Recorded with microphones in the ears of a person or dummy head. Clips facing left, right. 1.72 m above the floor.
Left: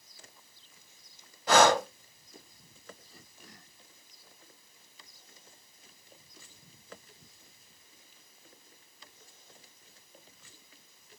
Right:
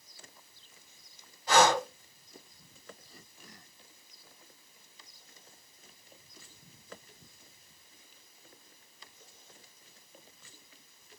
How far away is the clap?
I don't hear a clap.